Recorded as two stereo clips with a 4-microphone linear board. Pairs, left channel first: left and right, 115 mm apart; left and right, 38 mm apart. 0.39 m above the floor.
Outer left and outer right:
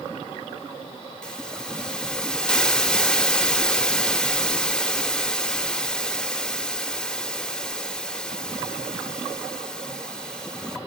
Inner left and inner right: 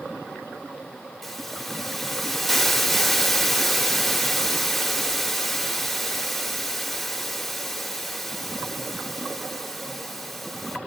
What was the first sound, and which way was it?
A hiss, 5° left (ahead or behind).